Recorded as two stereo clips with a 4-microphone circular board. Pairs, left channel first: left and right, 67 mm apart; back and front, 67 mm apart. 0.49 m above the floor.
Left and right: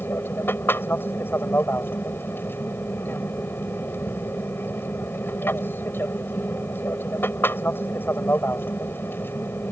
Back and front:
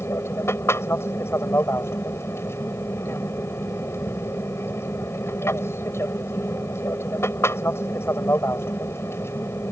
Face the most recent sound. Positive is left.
turn(degrees=140)